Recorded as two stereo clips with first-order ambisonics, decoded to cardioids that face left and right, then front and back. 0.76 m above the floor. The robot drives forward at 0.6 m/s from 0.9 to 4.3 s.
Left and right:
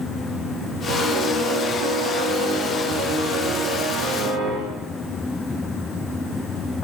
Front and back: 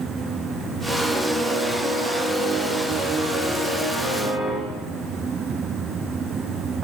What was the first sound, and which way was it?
A piano, 90° right.